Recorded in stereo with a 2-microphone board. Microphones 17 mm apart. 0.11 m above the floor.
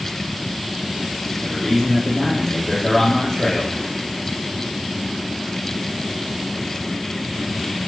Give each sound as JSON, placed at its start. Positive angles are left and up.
{"t": 1.4, "sound": "a man speaking", "side_deg": 15, "distance_m": 4.0}